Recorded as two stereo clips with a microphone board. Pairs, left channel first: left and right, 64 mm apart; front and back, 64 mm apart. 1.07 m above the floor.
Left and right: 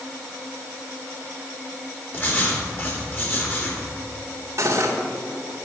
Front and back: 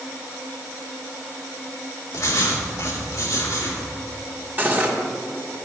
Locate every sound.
2.1 s writing: 40° left, 3 m
4.6 s cutlery clinking: 120° right, 1.8 m